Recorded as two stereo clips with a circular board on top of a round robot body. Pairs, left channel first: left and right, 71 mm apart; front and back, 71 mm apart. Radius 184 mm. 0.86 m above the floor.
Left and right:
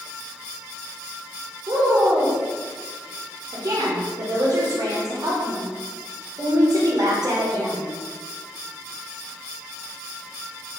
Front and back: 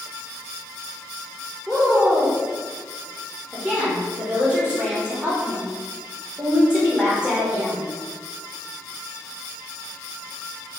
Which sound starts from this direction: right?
A woman speaking, at 1.7 s.